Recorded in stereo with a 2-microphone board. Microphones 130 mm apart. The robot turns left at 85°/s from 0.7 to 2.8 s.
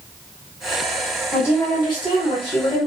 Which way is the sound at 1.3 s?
165° left.